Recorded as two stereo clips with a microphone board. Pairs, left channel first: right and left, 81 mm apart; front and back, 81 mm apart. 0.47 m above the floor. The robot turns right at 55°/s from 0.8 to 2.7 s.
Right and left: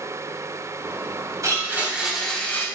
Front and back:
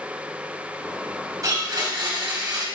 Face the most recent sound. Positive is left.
turn(degrees=-150)